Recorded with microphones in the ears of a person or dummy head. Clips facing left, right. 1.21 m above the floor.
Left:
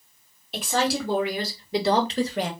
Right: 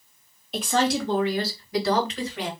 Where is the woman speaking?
5° left (ahead or behind), 1.7 m; by 2.5 s 50° left (ahead or behind), 1.1 m.